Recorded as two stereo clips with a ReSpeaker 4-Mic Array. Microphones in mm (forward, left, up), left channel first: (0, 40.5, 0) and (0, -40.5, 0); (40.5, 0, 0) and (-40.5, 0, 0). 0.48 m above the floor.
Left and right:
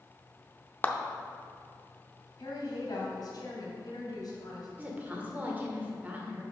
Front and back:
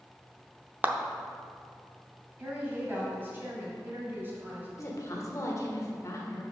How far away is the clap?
About 0.6 m.